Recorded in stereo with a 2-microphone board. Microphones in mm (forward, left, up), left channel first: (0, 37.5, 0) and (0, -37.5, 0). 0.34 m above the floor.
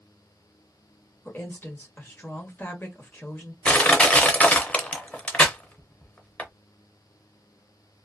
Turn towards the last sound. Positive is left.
turn(degrees=15)  # may be behind; listen again after turning